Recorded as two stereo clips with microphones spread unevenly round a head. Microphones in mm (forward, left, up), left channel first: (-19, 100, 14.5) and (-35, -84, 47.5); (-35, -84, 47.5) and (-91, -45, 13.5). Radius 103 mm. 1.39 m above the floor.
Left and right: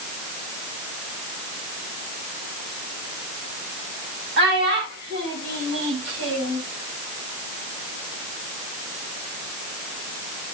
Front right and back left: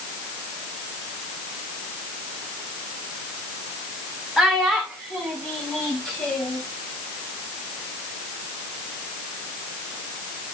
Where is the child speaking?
125° right, 7.5 m; by 6.6 s 105° right, 6 m.